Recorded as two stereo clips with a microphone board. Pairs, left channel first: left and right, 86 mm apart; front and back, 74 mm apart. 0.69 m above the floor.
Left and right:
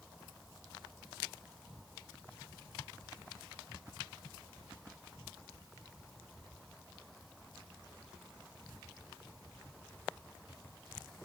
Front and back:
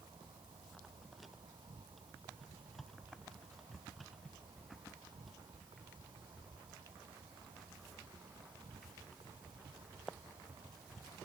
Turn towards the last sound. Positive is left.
turn(degrees=-175)